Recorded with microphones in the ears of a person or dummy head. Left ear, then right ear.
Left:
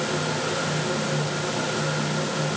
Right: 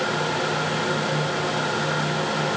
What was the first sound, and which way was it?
Only background noise.